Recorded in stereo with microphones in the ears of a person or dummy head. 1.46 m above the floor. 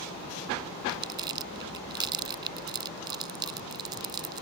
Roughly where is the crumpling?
Right.